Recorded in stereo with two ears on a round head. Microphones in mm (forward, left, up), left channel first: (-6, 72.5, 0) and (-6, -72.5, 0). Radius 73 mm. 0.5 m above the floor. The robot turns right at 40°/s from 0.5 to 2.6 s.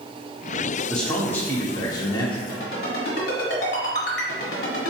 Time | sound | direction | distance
0.9 | a man speaking | 10° left | 0.9 m
2.5 | a ringtone | 70° left (ahead or behind) | 1.9 m